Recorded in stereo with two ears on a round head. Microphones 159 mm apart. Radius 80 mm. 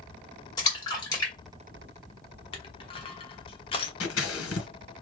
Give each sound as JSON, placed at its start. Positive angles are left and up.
{"t": 0.6, "sound": "a splash", "side_deg": 20, "distance_m": 2.5}
{"t": 2.5, "sound": "crushing", "side_deg": 30, "distance_m": 0.9}
{"t": 4.0, "sound": "scissors", "side_deg": 85, "distance_m": 1.7}